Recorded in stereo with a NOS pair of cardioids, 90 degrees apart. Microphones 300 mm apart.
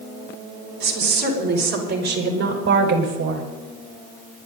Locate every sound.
0.8 s a woman speaking: 65° right, 6 m; by 3.5 s 55° right, 5.5 m